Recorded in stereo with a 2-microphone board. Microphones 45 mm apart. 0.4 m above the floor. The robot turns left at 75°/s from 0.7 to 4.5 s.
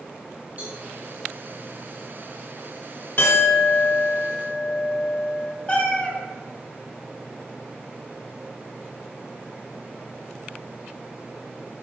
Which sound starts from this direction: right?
A cowbell, at 0.6 s.